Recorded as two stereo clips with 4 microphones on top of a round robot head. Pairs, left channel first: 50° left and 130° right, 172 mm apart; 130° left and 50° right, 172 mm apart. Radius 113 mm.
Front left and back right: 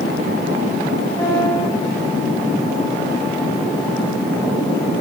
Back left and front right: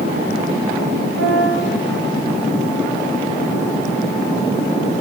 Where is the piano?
30° right, 3.5 m.